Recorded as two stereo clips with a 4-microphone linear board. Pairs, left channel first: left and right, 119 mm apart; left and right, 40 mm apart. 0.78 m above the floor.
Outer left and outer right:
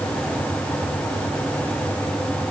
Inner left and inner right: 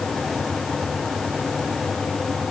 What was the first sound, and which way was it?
Only background noise.